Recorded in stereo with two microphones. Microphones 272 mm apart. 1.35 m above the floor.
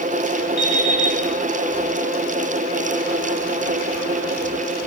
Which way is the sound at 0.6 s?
70° left (ahead or behind).